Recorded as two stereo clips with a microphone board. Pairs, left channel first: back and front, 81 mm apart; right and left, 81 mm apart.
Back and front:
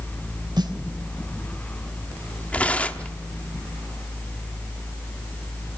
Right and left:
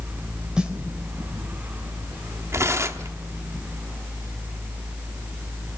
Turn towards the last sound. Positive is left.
turn(degrees=120)